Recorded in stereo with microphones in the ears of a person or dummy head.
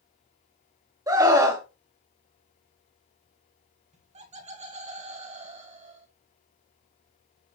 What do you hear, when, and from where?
1.1 s a scream: 15° right (ahead or behind), 1.6 m
3.9 s laughter: 35° right (ahead or behind), 1.3 m